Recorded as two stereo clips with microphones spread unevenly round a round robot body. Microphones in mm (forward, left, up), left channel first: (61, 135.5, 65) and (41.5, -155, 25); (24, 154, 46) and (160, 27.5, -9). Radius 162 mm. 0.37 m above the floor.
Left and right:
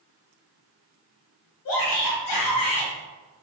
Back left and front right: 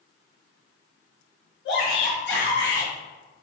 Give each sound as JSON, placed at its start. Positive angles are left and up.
{"t": 1.6, "sound": "a shout", "azimuth_deg": 110, "distance_m": 2.0}